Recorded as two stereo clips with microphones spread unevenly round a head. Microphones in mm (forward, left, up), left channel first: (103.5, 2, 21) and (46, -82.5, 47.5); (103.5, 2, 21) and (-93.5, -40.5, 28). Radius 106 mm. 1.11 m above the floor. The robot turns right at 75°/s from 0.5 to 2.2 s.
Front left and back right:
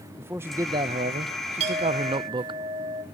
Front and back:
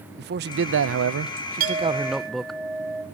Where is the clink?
125° right, 2.5 m; by 3.0 s 80° right, 2.5 m.